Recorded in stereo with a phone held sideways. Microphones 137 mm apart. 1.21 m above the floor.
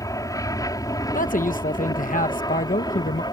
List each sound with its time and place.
0.0 s an aircraft: 25° left (ahead or behind); by 3.3 s 30° left (ahead or behind)
1.1 s a man speaking: 90° left